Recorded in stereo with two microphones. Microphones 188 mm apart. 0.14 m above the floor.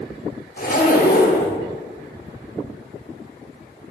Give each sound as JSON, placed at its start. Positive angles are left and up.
{"t": 0.6, "sound": "a zipper", "side_deg": 50, "distance_m": 2.0}